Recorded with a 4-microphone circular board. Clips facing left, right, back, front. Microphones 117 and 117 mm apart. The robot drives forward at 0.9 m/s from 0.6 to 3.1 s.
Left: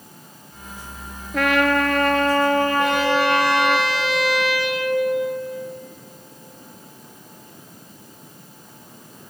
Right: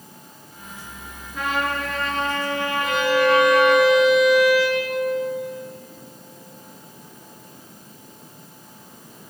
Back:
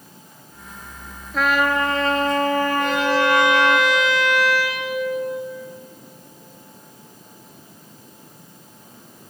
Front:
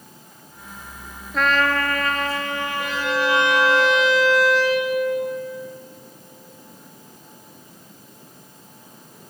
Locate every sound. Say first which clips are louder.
1.3 s a trumpet: left 7 dB, back 1 dB; 90° left, 1.2 m; by 3.8 s 145° left, 2.0 m
2.8 s a violin: left 1 dB, back 4 dB; 85° left, 9 m